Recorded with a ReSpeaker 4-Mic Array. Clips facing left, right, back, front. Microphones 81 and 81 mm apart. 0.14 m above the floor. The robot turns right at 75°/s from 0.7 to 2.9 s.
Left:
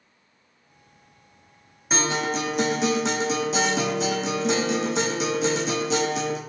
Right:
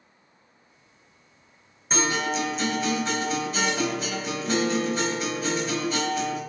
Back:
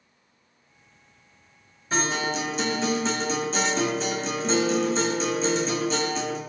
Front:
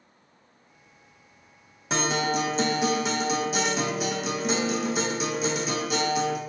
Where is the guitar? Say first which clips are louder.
Left 1 dB, front 1 dB; 5° left, 1.4 m; by 6.4 s 80° left, 1.4 m.